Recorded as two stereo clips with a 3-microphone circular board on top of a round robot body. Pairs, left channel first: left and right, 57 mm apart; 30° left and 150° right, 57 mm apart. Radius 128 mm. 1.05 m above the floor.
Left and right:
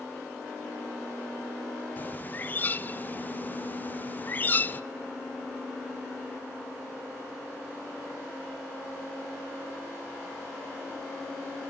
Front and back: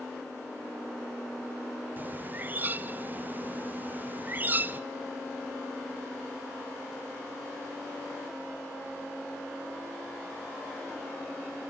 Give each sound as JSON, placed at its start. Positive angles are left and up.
{"t": 2.0, "sound": "a bird", "azimuth_deg": 150, "distance_m": 0.6}